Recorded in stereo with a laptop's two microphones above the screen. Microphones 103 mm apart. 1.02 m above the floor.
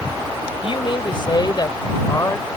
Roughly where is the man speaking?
Left.